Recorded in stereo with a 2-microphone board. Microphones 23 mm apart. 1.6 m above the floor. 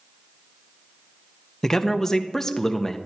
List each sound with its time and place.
1.6 s a man speaking: 20° left (ahead or behind), 0.9 m